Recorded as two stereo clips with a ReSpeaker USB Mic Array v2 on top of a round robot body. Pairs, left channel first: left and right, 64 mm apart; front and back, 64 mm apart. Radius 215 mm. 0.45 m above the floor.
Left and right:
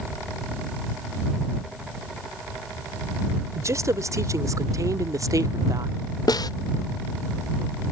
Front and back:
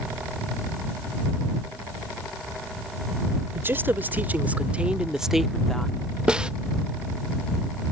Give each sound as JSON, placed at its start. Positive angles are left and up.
{"t": 3.5, "sound": "a woman speaking", "azimuth_deg": -125}
{"t": 6.3, "sound": "a snare drum", "azimuth_deg": 105}